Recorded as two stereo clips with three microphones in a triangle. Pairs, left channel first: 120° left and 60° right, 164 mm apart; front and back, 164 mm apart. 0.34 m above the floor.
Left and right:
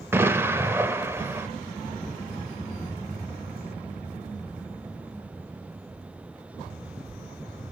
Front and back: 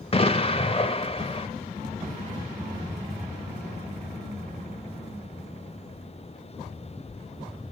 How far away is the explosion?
About 0.8 m.